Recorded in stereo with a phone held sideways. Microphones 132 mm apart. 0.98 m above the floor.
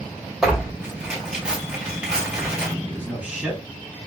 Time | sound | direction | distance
0.4 | tearing paper | 5° right (ahead or behind) | 3 m
2.9 | a man speaking | 10° right (ahead or behind) | 3 m